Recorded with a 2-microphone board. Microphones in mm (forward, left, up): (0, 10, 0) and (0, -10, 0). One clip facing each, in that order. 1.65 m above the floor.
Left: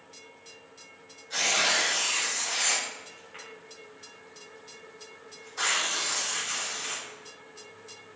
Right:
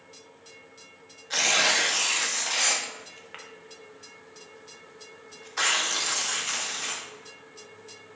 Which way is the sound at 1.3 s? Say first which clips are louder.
Right 3 dB; 40° right (ahead or behind).